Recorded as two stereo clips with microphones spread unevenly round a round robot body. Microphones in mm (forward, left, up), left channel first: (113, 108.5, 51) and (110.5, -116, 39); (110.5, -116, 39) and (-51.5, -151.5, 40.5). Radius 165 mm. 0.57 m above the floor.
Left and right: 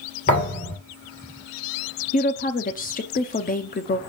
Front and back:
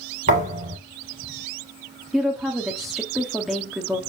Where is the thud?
155° left, 2.5 m.